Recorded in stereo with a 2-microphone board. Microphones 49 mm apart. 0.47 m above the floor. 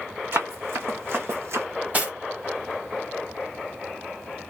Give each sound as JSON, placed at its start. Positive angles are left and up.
{"t": 0.3, "sound": "running footsteps", "side_deg": -50, "distance_m": 1.8}
{"t": 1.9, "sound": "cutlery clinking", "side_deg": -30, "distance_m": 1.6}